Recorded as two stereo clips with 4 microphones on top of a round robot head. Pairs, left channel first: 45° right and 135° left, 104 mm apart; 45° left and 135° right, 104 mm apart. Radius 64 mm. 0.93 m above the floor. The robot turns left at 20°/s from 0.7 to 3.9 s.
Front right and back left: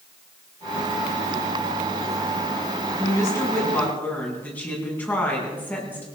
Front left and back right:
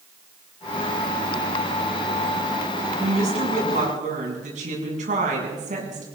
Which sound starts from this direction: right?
A woman speaking, at 3.0 s.